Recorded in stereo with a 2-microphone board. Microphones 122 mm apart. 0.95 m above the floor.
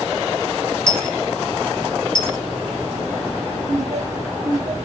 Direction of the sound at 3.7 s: 65° right (ahead or behind).